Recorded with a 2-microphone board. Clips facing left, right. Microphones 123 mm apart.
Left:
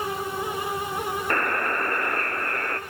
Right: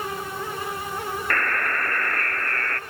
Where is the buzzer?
25° left (ahead or behind), 1.0 m.